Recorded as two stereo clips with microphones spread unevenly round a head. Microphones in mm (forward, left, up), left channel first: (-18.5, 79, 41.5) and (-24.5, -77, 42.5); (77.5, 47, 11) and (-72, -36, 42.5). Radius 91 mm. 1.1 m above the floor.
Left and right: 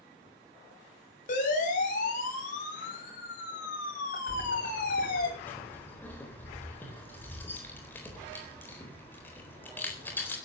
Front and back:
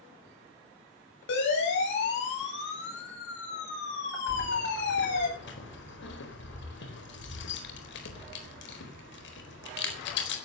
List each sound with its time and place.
1.3 s a siren: 45° left, 8.5 m; by 5.3 s 50° left, 10 m
4.3 s keys jangling: 10° left, 4 m